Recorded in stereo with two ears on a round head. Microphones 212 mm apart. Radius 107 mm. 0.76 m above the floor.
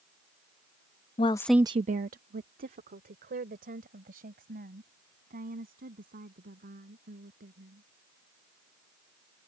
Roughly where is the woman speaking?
Left.